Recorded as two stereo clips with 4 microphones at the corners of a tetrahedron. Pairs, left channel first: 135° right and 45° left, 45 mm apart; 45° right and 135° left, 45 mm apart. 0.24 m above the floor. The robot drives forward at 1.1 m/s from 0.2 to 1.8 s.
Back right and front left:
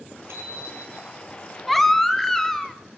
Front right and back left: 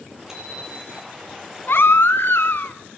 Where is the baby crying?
45° right, 0.8 m; by 2.8 s 55° right, 0.8 m.